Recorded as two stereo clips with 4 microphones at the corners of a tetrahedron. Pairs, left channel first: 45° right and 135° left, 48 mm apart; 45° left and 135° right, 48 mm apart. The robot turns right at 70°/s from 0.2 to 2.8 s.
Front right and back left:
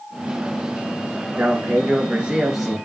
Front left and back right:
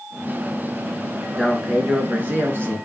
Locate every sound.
1.4 s a man speaking: 135° left, 1.9 m; by 2.8 s 125° right, 1.9 m